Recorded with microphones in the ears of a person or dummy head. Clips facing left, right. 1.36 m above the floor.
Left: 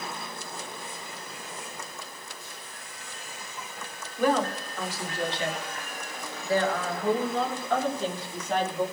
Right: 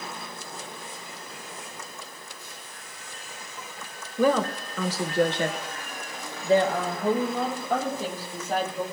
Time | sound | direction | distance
4.2 | a woman speaking | 70° right (ahead or behind) | 1.2 m